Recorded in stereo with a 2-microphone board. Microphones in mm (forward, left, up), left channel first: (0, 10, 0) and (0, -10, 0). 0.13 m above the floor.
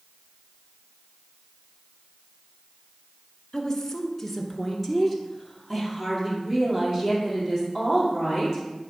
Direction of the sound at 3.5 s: 25° left (ahead or behind).